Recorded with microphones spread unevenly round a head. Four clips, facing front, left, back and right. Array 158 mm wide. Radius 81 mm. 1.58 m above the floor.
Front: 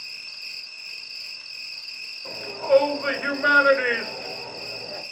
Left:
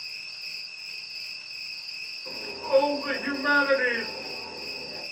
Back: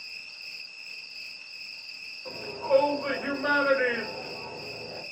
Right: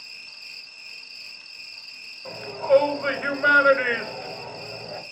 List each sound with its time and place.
0.0 s an insect: 5° left, 1.1 m
2.2 s a shout: 35° right, 1.1 m